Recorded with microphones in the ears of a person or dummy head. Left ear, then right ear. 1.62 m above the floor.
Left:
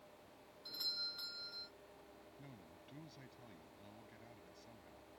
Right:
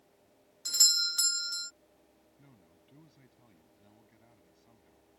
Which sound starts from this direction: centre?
A man speaking, at 2.4 s.